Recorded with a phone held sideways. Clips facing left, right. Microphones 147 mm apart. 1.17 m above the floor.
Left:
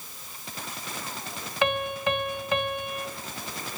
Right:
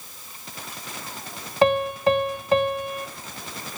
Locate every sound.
1.6 s a piano: 35° right (ahead or behind), 1.1 m